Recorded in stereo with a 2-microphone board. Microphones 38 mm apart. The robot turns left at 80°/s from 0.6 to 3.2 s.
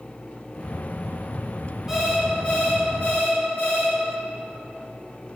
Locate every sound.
1.9 s an alarm clock: 165° right, 2.0 m; by 4.0 s 90° left, 2.0 m